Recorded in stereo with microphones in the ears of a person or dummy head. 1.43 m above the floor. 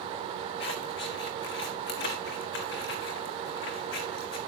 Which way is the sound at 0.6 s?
50° left (ahead or behind).